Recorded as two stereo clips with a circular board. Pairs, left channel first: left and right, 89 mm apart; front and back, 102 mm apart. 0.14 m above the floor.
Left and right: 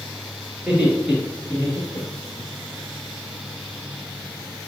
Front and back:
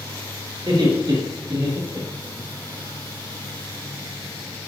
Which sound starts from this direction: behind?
Laughter, at 0.6 s.